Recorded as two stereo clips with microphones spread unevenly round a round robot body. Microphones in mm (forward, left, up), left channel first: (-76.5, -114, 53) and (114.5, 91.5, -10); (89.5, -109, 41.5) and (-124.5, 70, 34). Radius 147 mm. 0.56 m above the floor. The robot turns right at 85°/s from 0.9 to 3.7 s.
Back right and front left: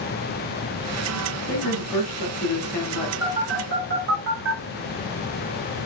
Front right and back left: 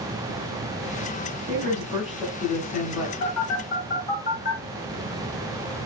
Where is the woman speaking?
175° left, 3.5 m; by 3.1 s 45° right, 3.5 m.